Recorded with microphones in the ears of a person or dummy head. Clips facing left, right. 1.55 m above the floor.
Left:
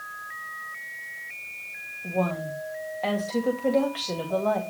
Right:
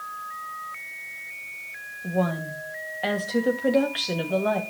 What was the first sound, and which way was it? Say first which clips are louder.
A woman speaking: right 1 dB; 10° right (ahead or behind).